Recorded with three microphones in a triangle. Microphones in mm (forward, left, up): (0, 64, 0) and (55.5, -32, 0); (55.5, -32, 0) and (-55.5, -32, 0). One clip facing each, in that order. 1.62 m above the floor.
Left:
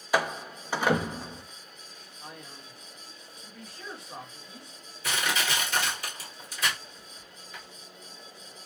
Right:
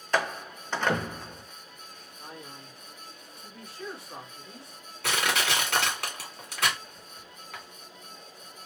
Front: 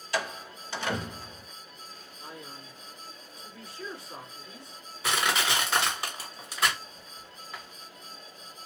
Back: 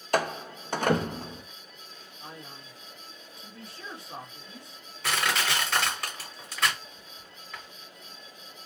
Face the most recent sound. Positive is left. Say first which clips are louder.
# right 2 dB, front 1 dB
turn(degrees=-85)